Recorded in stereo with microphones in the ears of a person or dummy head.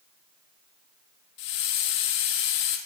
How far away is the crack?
I don't hear a crack.